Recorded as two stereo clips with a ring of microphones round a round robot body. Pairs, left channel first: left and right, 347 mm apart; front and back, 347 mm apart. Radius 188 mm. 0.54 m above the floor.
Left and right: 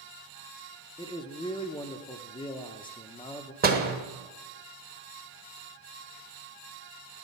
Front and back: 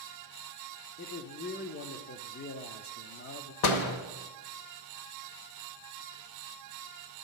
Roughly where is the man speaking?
Ahead left.